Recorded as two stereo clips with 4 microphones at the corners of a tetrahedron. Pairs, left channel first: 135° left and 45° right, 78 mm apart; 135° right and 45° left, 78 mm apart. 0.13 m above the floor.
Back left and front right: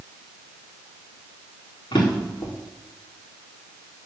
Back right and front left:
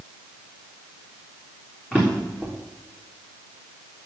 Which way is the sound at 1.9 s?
145° left.